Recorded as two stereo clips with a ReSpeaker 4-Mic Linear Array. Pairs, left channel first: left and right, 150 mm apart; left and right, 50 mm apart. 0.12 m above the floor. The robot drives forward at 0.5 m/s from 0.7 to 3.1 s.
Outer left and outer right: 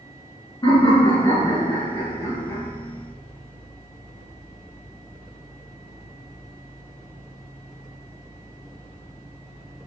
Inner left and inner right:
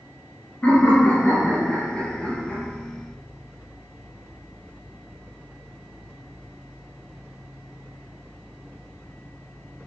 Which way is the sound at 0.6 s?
30° left (ahead or behind).